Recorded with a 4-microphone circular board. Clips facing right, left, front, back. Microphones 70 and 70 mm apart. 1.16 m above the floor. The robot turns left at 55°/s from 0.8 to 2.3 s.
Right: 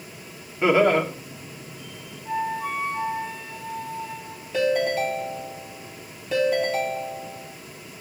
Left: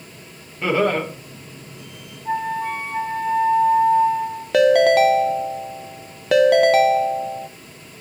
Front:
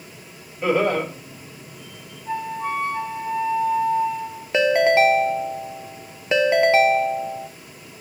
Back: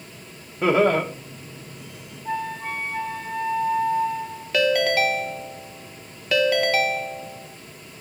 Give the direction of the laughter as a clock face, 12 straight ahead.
5 o'clock.